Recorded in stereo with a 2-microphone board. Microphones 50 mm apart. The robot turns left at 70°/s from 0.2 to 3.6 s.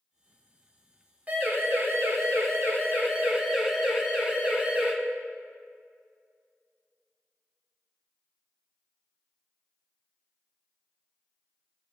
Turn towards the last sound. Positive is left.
turn(degrees=-30)  # may be behind; listen again after turning